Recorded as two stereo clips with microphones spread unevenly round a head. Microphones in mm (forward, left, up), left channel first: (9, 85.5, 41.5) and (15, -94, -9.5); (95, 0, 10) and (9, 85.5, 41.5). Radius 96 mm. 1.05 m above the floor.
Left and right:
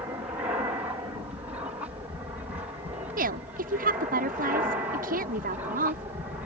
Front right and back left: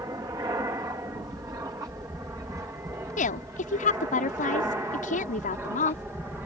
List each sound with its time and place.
0.0 s an aircraft: 155° right; by 6.5 s 140° right
3.2 s a woman speaking: 45° right